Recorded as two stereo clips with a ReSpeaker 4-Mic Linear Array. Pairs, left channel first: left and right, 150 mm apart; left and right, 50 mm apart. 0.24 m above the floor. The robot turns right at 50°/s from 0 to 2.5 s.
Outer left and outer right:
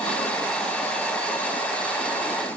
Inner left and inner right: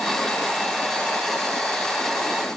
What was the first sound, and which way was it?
Only background noise.